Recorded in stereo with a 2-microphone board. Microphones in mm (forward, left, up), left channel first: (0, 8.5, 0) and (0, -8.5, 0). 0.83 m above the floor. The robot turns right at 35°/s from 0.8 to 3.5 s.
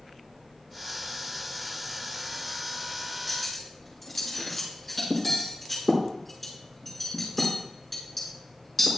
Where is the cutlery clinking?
10° left (ahead or behind), 5.5 m; by 8.9 s 15° left (ahead or behind), 5.5 m.